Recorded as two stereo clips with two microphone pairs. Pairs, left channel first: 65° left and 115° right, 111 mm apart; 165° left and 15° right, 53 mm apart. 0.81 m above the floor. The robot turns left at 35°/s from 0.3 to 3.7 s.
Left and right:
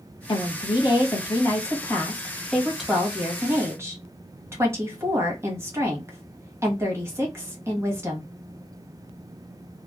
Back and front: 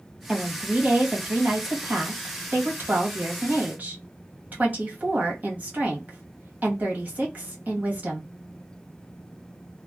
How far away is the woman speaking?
About 1.1 m.